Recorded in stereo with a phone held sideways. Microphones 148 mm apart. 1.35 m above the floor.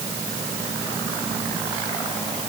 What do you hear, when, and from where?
Only background noise.